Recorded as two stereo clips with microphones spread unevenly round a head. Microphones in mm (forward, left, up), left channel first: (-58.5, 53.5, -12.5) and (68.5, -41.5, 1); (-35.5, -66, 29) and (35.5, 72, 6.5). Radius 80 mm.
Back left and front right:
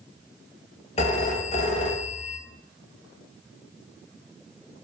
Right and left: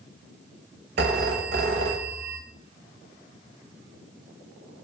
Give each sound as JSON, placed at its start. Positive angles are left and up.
{"t": 1.0, "sound": "a phone ringing", "azimuth_deg": 90, "distance_m": 0.5}